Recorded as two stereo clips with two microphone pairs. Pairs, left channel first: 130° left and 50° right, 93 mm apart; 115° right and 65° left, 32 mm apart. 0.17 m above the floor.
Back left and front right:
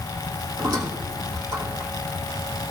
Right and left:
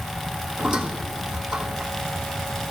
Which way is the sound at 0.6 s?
10° right.